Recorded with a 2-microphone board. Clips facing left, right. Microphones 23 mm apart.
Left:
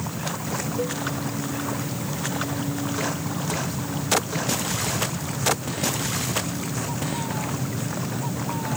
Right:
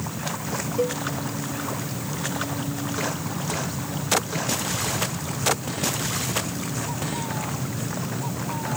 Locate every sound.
0.8 s a cowbell: 25° right (ahead or behind)